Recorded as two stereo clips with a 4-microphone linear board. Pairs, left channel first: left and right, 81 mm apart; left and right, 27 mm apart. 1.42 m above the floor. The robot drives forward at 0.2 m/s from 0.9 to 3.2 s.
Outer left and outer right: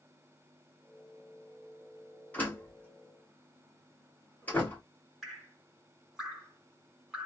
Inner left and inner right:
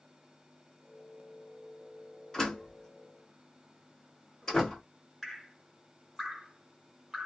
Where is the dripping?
Centre (ahead or behind), 1.9 m.